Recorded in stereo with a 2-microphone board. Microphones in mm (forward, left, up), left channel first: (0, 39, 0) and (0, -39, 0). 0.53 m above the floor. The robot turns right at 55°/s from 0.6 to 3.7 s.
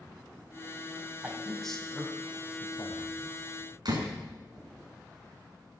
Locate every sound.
1.2 s a man speaking: 20° right (ahead or behind), 4 m; by 3.4 s 70° left (ahead or behind), 4 m
3.9 s a door slam: 60° right (ahead or behind), 5 m